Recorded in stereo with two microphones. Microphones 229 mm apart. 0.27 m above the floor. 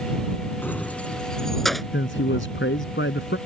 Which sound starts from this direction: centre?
Keys jangling, at 0.6 s.